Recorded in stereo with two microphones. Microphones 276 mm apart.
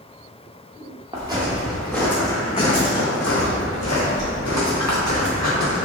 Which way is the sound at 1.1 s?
15° right (ahead or behind).